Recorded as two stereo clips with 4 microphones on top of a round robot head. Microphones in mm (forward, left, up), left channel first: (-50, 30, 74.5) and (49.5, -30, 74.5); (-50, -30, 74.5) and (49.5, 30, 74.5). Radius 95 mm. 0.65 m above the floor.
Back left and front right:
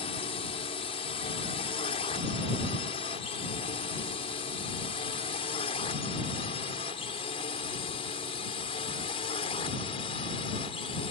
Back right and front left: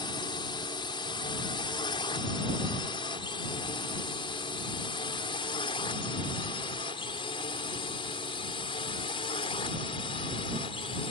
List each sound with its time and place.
0.0 s a drone: 170° left; by 11.1 s straight behind